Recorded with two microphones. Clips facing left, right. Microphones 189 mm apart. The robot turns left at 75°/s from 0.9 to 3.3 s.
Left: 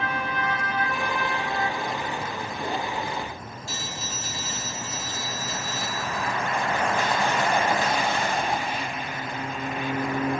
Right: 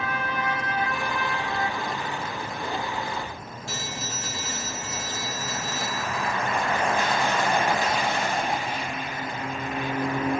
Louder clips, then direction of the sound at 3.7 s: Right 2 dB; 65° right (ahead or behind).